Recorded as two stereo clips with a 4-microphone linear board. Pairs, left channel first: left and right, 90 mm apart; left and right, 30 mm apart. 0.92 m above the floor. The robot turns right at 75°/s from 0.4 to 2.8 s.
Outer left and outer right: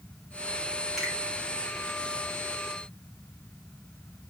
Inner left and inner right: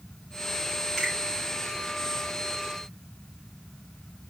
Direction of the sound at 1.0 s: Centre (ahead or behind).